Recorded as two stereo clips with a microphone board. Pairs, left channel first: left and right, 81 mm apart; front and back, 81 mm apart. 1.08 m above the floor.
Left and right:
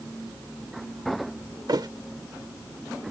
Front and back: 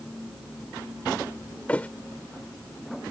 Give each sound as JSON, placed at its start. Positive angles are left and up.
{"t": 1.7, "sound": "a thud", "azimuth_deg": -70}